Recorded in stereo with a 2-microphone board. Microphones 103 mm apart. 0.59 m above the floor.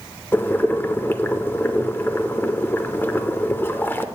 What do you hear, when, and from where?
0.3 s boiling: 20° left (ahead or behind), 0.5 m